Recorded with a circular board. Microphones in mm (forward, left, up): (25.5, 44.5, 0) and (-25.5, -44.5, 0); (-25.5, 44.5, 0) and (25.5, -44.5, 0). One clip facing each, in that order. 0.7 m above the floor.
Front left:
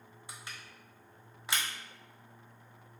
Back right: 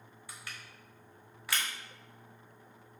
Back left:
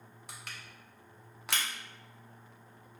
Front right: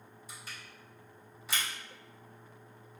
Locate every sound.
0.3 s crushing: 125° left, 0.6 m